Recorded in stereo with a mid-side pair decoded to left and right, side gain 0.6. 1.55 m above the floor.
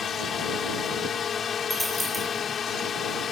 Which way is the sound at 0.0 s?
35° left.